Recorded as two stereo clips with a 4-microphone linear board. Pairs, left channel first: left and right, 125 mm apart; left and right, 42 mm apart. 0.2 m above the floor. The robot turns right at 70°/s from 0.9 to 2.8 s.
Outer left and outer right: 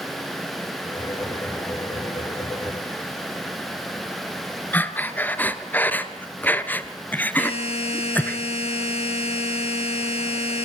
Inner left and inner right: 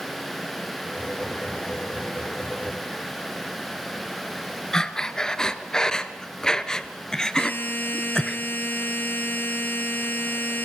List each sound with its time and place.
4.7 s breathing: 15° left (ahead or behind), 1.3 m
7.4 s a buzzer: 55° left (ahead or behind), 4 m